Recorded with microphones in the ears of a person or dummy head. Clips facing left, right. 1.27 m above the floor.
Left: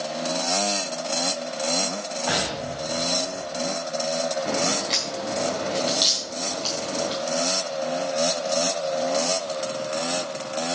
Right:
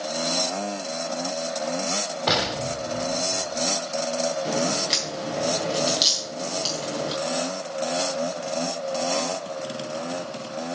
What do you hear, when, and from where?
2.3 s an explosion: 55° right (ahead or behind), 2.5 m
4.5 s a crack: 10° right (ahead or behind), 3 m